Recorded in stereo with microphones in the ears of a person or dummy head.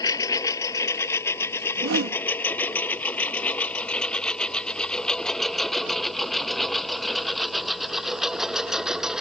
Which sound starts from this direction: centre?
A lawn mower, at 0.0 s.